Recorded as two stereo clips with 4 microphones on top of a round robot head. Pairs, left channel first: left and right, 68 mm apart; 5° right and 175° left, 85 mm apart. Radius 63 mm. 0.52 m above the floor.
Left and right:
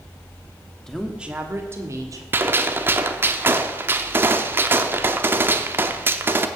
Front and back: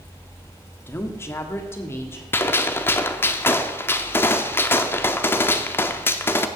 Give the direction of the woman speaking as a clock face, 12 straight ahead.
12 o'clock.